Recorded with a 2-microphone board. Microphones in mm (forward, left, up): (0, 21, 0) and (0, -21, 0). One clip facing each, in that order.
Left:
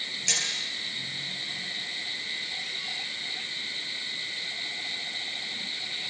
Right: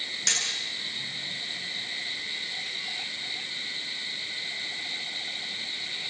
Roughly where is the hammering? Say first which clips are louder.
Right 1 dB; right.